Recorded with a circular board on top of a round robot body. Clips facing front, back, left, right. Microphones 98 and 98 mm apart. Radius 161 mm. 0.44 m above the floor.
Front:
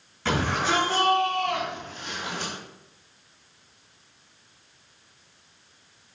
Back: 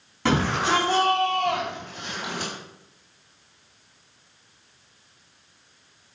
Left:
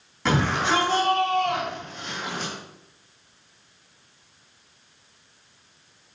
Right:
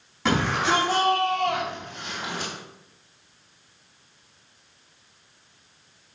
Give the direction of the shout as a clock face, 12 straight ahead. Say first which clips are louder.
Back 3 dB, even; 6 o'clock.